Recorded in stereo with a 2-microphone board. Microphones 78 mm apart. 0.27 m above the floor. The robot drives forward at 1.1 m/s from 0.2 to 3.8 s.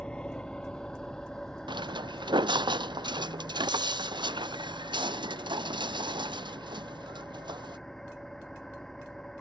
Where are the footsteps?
80° right; by 7.8 s 75° right (ahead or behind).